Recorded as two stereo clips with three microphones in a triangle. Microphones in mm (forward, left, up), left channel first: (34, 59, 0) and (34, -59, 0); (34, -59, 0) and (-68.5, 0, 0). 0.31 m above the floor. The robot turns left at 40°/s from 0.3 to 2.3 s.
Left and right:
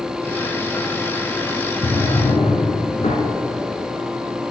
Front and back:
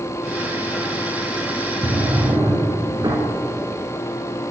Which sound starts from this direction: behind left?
A drawer, at 1.8 s.